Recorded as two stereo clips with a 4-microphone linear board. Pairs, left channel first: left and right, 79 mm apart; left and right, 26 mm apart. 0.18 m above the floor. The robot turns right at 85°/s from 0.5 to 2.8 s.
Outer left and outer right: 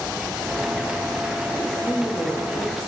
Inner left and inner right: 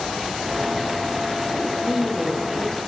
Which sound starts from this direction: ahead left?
A woman speaking, at 1.6 s.